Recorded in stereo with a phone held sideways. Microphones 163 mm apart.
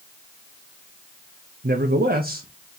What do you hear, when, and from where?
1.6 s a man speaking: 75° right (ahead or behind), 0.5 m; by 2.8 s 55° right (ahead or behind), 1.0 m